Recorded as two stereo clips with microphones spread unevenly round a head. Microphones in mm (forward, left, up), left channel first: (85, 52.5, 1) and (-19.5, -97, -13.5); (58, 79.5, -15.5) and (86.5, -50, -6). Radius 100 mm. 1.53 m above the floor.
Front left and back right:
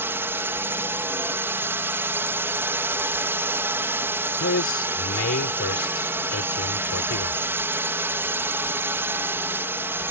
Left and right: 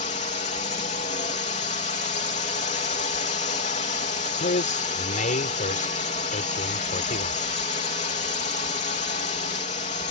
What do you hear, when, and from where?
0.0 s a drone: 155° left
4.4 s a man speaking: 80° left